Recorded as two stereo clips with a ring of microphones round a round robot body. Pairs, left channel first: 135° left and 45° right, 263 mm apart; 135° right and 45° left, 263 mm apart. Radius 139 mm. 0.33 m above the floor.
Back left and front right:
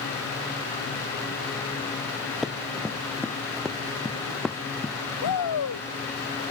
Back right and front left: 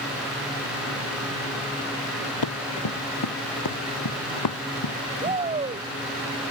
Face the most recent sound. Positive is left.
turn(degrees=115)